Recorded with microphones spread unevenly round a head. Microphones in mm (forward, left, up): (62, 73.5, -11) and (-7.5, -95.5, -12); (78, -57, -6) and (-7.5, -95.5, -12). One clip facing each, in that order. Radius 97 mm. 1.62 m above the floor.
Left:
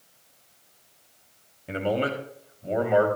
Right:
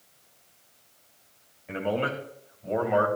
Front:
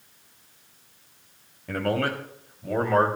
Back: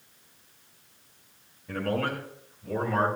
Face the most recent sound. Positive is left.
turn(degrees=0)